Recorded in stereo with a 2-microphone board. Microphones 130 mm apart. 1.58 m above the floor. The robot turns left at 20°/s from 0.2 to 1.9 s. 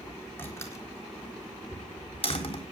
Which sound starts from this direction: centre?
A door slam, at 0.4 s.